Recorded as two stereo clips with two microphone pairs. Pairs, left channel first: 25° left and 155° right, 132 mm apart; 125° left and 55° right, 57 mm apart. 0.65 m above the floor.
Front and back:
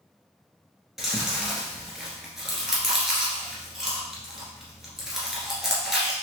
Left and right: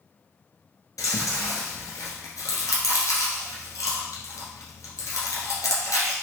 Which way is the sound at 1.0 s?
120° left.